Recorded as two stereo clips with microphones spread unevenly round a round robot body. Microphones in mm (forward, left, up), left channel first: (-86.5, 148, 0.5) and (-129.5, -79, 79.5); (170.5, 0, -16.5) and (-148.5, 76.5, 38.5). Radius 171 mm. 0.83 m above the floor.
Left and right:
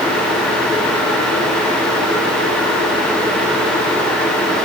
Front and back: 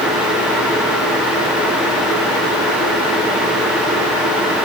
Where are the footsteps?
I don't hear footsteps.